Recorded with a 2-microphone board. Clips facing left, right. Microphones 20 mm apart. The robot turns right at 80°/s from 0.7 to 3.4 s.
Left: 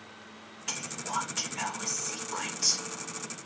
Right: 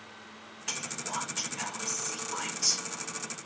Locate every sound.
0.7 s whispering: 5° right, 0.7 m; by 2.9 s 165° left, 0.7 m